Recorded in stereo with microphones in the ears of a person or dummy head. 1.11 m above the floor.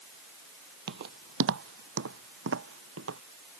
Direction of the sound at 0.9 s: 55° right (ahead or behind).